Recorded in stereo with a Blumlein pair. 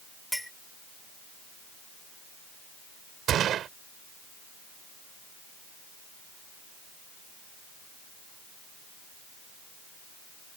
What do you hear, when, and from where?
0.3 s a clink: straight ahead
3.3 s a gunshot: 30° right